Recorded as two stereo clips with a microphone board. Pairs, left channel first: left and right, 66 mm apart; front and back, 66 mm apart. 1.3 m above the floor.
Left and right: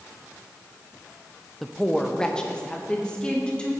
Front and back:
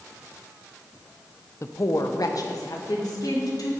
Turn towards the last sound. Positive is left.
turn(degrees=15)